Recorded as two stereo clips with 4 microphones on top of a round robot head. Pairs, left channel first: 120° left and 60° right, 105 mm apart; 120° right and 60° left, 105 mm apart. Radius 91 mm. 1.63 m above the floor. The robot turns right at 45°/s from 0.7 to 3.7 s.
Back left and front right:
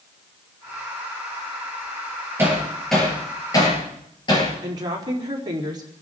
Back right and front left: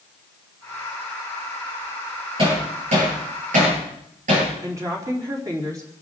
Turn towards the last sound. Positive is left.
turn(degrees=-5)